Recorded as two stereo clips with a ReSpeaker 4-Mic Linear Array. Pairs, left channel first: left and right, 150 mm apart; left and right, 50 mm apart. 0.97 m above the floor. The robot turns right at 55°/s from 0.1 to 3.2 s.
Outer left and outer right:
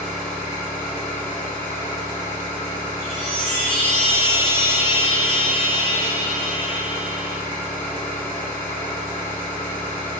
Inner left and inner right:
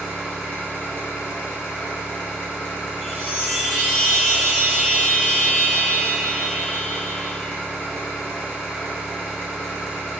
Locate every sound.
0.0 s an engine running: straight ahead, 1.5 m; by 10.2 s 170° left, 1.5 m
3.0 s a chime: 60° left (ahead or behind), 1.5 m; by 7.4 s 50° left (ahead or behind), 1.5 m